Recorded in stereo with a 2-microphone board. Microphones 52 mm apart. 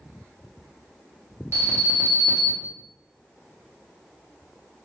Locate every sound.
1.5 s an alarm: 60° right (ahead or behind), 0.7 m